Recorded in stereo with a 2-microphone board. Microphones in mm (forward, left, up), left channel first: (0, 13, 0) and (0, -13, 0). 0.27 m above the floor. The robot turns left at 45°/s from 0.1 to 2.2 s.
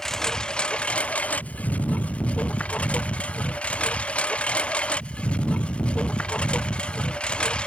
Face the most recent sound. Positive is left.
turn(degrees=45)  # may be behind; listen again after turning